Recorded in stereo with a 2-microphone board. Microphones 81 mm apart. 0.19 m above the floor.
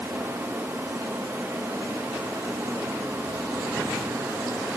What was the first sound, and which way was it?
Only background noise.